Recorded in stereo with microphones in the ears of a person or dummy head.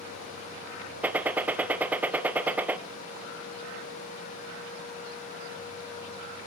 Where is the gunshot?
10° right (ahead or behind), 1.1 m.